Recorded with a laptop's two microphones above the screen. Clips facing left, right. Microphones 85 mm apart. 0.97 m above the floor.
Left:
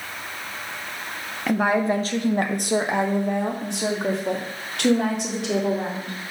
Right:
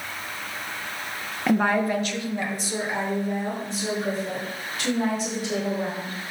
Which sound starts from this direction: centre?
A woman speaking, at 1.5 s.